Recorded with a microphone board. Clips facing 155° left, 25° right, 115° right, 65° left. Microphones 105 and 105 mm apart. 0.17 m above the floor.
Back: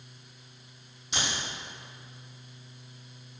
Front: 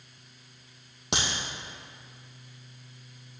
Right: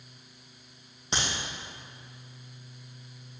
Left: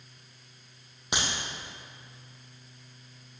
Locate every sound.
1.1 s a crack: 10° right, 3 m